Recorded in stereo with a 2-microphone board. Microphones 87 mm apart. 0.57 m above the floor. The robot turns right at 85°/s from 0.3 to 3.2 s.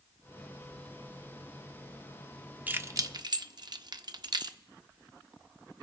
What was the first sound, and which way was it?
Keys jangling, 20° right (ahead or behind).